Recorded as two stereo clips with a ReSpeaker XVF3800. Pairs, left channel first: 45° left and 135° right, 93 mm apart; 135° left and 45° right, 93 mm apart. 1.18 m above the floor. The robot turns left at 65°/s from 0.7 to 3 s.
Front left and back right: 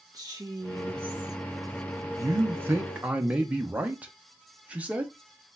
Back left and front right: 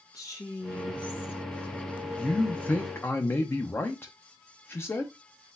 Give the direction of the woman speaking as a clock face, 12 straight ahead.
6 o'clock.